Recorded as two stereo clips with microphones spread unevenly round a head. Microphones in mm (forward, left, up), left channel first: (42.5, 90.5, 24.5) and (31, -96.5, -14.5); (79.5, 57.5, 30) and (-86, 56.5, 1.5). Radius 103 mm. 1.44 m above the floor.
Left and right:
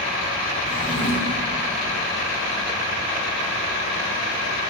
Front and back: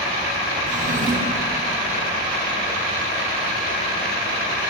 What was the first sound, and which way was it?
A drawer, 140° left.